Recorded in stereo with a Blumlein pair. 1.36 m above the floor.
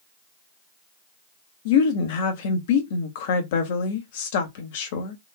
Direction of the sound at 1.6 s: 50° left.